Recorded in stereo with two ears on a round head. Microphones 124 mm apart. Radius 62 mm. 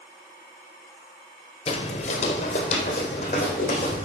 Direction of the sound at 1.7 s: 45° left (ahead or behind).